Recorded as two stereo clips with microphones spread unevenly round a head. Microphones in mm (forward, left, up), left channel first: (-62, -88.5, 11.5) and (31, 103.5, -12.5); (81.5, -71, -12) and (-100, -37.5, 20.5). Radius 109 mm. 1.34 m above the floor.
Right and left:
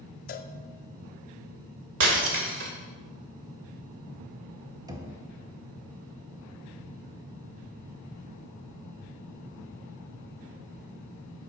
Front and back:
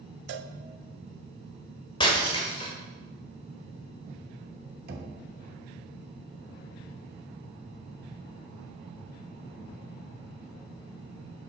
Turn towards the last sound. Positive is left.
turn(degrees=140)